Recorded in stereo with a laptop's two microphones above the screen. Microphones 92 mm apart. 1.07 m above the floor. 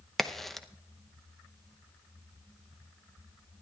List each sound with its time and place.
0.2 s a crack: centre (ahead or behind), 0.8 m